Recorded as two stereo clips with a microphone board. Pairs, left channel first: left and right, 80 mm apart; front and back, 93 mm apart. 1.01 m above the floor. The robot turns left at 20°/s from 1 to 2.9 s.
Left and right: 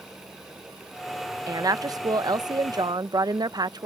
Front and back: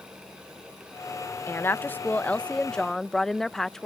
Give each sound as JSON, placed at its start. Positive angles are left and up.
{"t": 1.5, "sound": "a woman speaking", "azimuth_deg": -55}